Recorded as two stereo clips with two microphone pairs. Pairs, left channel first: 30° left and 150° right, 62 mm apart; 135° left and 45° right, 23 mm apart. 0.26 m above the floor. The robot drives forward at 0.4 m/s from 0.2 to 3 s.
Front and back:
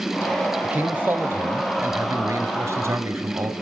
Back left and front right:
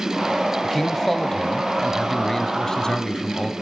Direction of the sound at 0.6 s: 160° right.